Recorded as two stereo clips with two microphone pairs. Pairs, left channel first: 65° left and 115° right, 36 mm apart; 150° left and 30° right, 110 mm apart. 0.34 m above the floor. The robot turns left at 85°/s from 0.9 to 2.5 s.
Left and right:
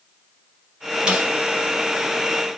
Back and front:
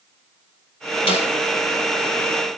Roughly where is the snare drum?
Behind.